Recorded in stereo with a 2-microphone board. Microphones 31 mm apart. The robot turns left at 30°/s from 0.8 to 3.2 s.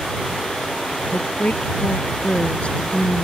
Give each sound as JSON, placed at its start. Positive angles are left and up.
{"t": 1.1, "sound": "a woman speaking", "azimuth_deg": 85}